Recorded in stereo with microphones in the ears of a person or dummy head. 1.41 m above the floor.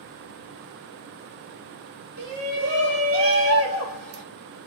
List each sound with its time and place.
2.2 s a shout: 60° right (ahead or behind), 2.5 m; by 4.2 s 80° right, 1.4 m